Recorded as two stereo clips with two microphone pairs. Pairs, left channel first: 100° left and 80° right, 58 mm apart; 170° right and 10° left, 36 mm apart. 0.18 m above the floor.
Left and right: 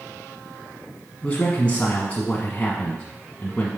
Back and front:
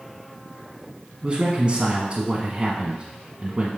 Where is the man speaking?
50° left, 1.2 m.